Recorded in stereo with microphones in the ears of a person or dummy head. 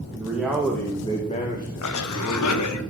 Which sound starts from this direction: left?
A cough, at 1.8 s.